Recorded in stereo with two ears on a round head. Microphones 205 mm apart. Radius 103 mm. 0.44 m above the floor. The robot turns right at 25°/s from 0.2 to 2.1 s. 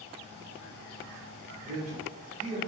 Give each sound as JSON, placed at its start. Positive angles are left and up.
{"t": 1.6, "sound": "a man speaking", "side_deg": -35, "distance_m": 0.8}